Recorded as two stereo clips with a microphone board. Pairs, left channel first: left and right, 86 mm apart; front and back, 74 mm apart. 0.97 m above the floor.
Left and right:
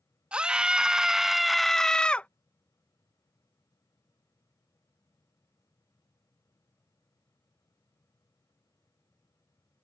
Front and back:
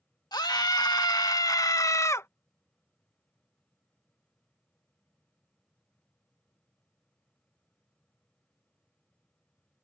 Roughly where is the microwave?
I don't hear a microwave.